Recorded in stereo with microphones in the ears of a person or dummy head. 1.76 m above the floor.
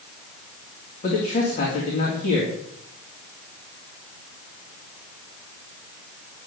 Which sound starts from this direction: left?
A man speaking, at 1.0 s.